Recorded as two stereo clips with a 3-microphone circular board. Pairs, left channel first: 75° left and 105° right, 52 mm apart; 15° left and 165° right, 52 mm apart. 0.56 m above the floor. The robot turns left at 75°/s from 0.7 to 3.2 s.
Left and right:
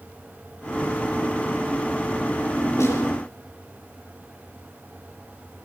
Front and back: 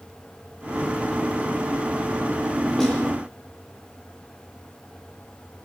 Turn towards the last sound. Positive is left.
turn(degrees=70)